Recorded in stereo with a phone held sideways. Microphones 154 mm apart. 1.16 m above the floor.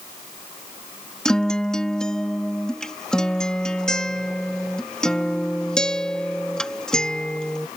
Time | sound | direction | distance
1.2 | a guitar | 5° left (ahead or behind) | ?